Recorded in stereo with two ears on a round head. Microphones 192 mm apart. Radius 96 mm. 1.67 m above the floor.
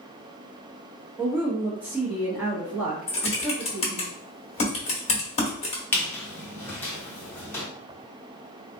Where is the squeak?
10° left (ahead or behind), 0.9 m.